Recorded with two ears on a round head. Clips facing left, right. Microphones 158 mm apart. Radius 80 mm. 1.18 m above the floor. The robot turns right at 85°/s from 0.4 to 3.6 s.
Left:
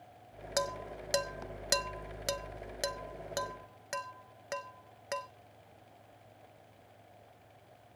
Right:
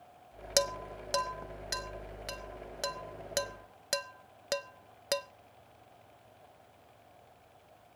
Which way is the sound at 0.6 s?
30° right (ahead or behind).